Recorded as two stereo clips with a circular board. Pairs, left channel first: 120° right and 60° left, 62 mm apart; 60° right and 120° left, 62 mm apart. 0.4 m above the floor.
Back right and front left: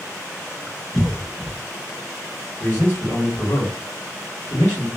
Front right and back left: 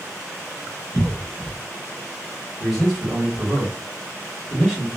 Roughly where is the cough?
Behind left.